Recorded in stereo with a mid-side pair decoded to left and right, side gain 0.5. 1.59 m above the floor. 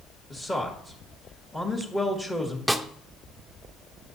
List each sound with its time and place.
0.3 s a man speaking: 20° left, 1.7 m
2.7 s a snare drum: straight ahead, 0.6 m